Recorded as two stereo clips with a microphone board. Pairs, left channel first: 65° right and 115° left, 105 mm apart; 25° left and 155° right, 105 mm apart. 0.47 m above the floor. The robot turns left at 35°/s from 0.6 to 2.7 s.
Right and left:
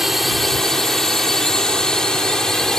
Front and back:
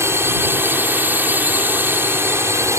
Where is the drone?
165° right; by 2.8 s 145° right.